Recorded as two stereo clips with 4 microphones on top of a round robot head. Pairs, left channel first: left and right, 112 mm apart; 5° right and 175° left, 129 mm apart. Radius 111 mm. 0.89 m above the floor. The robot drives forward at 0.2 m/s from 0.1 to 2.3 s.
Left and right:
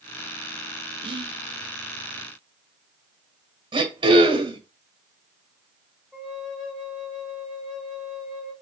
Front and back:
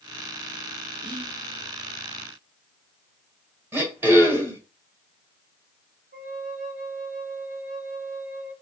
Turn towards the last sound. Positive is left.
turn(degrees=180)